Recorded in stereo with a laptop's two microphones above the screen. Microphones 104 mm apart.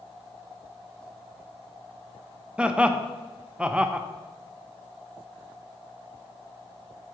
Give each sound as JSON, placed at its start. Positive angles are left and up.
{"t": 2.6, "sound": "laughter", "side_deg": -10, "distance_m": 0.6}